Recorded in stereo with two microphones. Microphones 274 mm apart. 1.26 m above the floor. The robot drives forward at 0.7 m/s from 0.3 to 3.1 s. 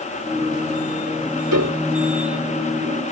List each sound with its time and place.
1.5 s a piano: 85° right